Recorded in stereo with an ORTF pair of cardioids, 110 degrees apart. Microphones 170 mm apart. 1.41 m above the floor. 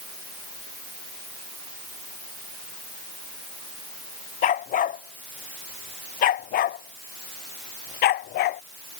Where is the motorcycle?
No motorcycle in this recording.